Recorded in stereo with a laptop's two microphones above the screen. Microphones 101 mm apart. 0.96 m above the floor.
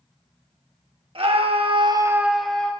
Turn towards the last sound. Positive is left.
turn(degrees=10)  # may be behind; listen again after turning